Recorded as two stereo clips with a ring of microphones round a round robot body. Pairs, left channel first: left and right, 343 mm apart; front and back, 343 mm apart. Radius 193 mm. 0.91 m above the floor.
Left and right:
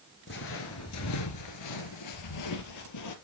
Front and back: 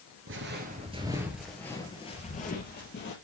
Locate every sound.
0.3 s footsteps: 140° left, 1.1 m; by 3.1 s 60° left, 1.8 m